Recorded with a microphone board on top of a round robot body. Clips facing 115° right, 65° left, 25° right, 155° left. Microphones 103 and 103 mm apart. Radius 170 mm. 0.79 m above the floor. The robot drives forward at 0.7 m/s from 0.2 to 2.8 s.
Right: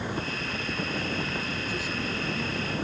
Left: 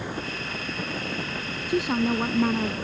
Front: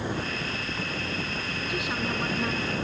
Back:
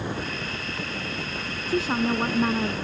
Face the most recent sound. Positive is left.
turn(degrees=105)